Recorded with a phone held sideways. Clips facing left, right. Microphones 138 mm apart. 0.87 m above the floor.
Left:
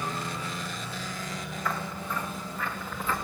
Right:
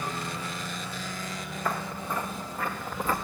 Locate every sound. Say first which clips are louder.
1.6 s footsteps: right 2 dB; 50° right (ahead or behind), 6.5 m; by 3.1 s 40° right (ahead or behind), 5.5 m